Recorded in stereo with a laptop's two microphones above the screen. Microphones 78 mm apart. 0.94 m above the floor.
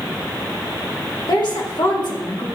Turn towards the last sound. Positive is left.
turn(degrees=70)  # may be behind; listen again after turning